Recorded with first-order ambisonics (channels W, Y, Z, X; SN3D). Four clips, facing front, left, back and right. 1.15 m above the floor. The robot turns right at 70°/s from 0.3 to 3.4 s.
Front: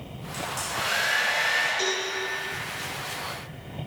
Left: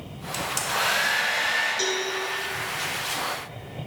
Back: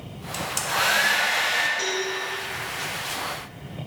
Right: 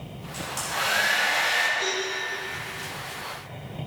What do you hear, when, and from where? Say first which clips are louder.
0.3 s a hair dryer: left 3 dB, back 5 dB; 130° left, 1.3 m; by 1.7 s 135° right, 1.3 m
1.8 s a cowbell: left 1 dB, back 1 dB; 90° left, 2 m; by 2.0 s 110° left, 2 m